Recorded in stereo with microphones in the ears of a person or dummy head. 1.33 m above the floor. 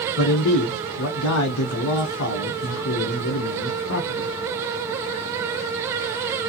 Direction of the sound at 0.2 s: 70° left (ahead or behind).